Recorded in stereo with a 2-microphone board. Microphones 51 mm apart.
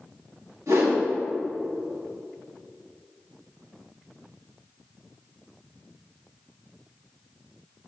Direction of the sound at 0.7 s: 80° right.